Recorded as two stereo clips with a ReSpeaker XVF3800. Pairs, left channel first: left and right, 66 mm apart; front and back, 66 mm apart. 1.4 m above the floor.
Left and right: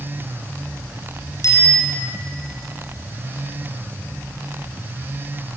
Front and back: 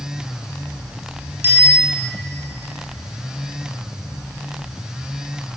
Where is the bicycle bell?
125° left, 7 m.